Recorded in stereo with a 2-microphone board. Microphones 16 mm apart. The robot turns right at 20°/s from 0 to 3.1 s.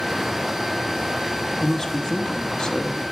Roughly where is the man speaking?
Left.